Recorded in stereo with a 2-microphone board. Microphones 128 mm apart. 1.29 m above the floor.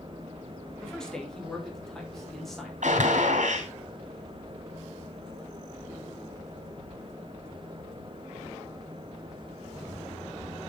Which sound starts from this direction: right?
A gunshot, at 2.8 s.